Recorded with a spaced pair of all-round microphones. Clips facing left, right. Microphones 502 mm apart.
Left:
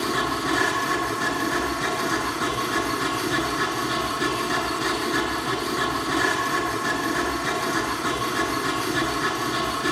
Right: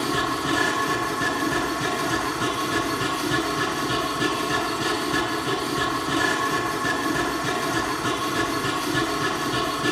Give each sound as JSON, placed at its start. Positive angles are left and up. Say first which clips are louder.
{"t": 0.0, "sound": "a machine running", "louder": "even", "side_deg": -55, "distance_m": 7.0}